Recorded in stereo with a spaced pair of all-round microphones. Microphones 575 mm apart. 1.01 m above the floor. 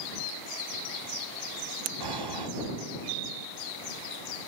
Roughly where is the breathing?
Right.